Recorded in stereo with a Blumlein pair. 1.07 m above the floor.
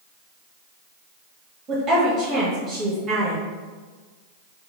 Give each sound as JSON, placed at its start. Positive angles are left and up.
{"t": 1.7, "sound": "a woman speaking", "azimuth_deg": -25, "distance_m": 0.8}